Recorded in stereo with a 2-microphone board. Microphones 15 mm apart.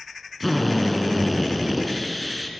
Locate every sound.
0.4 s a drill: centre (ahead or behind), 3.5 m